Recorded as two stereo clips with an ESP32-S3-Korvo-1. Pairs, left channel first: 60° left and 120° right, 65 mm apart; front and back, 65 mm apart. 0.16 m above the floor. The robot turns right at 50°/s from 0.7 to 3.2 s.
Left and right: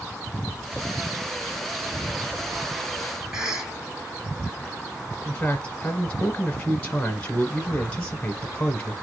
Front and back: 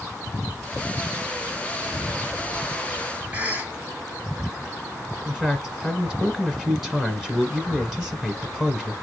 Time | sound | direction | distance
3.3 | a cough | 175° left | 1.5 m
5.2 | a man speaking | 105° left | 1.2 m